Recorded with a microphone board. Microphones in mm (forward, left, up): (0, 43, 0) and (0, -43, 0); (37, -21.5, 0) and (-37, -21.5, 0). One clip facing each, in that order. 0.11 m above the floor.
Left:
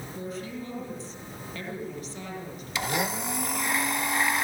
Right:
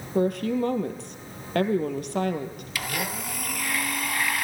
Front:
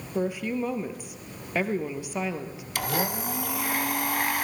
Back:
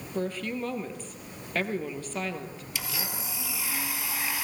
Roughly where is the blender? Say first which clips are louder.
Left 3 dB, front 10 dB; ahead left.